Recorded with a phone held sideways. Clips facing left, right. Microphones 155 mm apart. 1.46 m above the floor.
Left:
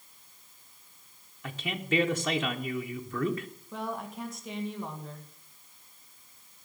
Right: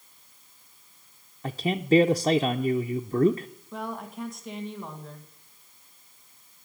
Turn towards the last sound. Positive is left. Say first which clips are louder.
# right 1 dB
turn(degrees=0)  # may be behind; listen again after turning